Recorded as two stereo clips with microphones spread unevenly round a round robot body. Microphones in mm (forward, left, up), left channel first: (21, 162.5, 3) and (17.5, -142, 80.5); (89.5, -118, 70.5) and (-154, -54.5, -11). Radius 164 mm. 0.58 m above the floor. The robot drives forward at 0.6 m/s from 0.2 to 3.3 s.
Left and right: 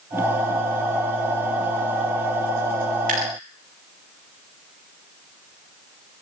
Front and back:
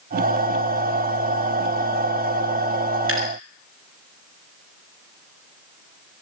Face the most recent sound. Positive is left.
turn(degrees=-155)